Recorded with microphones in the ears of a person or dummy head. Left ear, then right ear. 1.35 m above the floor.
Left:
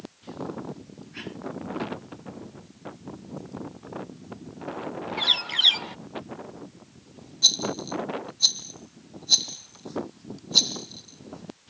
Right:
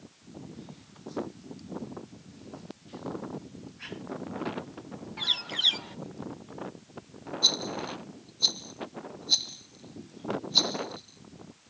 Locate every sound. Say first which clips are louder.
5.2 s a bird: left 6 dB; 25° left (ahead or behind)
7.4 s a rattle: left 4 dB; 5° left (ahead or behind)